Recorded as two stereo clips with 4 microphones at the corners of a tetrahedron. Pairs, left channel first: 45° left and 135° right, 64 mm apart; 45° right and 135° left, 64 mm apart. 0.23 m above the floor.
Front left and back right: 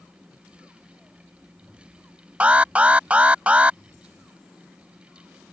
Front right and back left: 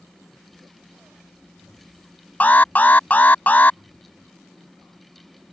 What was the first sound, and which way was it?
An alarm, 80° right.